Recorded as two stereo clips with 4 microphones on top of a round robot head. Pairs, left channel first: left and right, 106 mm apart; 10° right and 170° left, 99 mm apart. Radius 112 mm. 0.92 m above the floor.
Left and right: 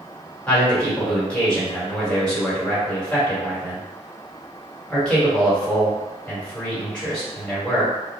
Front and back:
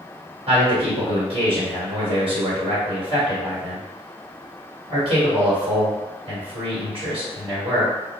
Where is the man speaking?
170° left, 1.5 m.